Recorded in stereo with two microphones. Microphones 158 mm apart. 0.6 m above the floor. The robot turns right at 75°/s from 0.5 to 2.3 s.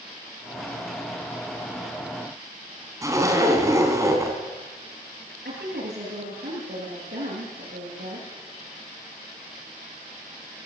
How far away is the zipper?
About 4 m.